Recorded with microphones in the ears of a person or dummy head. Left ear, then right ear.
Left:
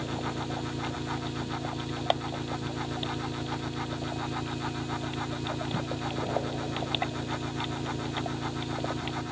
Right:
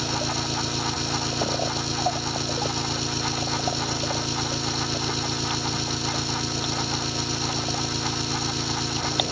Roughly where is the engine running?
Right.